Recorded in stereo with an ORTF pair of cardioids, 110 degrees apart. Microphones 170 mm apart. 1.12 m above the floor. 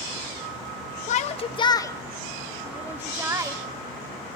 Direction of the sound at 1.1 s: 45° left.